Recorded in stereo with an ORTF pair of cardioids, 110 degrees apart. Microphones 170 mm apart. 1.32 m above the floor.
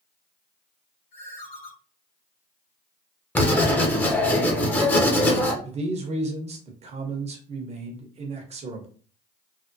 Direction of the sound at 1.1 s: 60° left.